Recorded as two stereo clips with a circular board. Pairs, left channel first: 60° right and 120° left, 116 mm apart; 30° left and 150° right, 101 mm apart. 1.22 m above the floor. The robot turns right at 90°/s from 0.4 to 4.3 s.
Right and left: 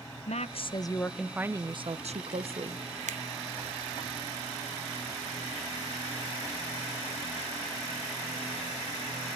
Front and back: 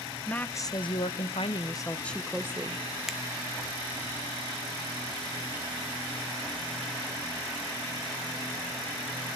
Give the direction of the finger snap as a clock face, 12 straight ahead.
8 o'clock.